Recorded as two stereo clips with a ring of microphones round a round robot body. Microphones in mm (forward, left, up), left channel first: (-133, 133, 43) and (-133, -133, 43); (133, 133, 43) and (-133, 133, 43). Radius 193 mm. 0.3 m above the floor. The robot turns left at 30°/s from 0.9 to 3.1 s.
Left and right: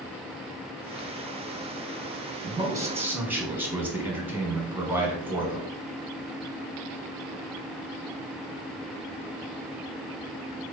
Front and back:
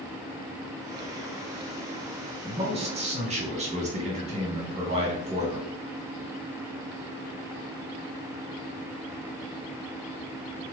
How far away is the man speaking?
About 1.1 m.